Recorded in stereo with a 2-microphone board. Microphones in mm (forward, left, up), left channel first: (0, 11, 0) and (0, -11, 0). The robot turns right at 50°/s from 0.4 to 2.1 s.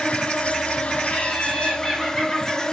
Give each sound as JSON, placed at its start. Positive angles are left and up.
{"t": 0.0, "sound": "an insect", "azimuth_deg": 65, "distance_m": 1.0}
{"t": 1.0, "sound": "laughter", "azimuth_deg": 140, "distance_m": 9.0}